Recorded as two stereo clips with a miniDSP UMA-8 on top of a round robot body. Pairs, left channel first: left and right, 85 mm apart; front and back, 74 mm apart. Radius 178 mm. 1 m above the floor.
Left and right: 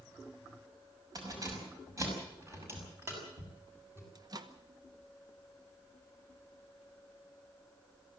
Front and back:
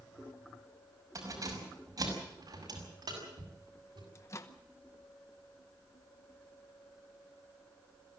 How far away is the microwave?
About 1.7 m.